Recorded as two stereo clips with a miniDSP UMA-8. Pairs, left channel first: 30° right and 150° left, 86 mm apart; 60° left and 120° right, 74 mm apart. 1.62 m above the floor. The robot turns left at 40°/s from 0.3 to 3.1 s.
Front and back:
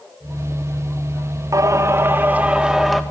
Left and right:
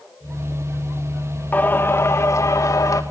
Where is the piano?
No piano in this recording.